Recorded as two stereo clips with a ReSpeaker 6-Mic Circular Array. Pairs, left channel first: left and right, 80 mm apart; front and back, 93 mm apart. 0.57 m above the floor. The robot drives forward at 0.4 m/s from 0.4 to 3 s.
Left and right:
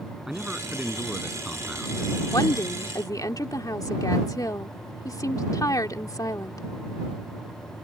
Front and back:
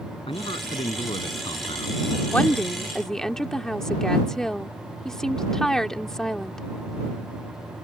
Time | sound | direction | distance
0.3 | a man speaking | 5° right | ?
2.3 | a woman speaking | 70° left | ?